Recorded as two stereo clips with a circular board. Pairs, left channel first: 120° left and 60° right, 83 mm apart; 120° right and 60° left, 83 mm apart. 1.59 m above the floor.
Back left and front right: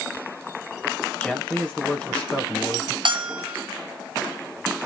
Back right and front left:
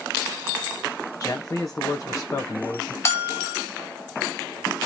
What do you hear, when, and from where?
1.2 s a man speaking: 165° right, 1.5 m
3.0 s a bell: 65° right, 1.3 m